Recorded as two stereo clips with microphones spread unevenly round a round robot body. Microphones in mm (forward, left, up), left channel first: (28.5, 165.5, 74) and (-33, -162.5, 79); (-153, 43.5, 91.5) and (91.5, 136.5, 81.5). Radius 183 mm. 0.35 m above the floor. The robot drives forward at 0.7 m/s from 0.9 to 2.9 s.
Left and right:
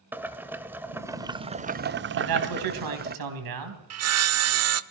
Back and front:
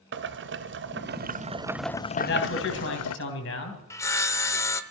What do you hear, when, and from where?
0.1 s boiling: 15° right, 0.9 m; by 3.2 s 160° right, 0.8 m
2.2 s a man speaking: 105° right, 3.5 m; by 3.8 s 115° right, 3.5 m
3.9 s sawing: 80° right, 0.7 m